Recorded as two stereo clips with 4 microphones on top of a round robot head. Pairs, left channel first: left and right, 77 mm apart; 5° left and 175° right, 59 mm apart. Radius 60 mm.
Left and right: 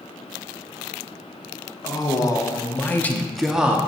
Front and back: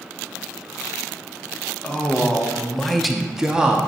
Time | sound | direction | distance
1.8 | a man speaking | 75° left | 1.0 m